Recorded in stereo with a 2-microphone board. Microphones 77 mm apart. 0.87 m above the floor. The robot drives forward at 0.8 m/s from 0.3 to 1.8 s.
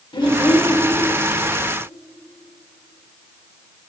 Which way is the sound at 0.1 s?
85° left.